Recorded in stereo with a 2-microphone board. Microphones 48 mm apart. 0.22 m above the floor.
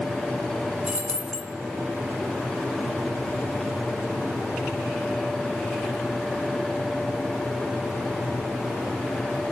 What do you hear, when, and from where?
0.9 s keys jangling: 15° right (ahead or behind), 1.5 m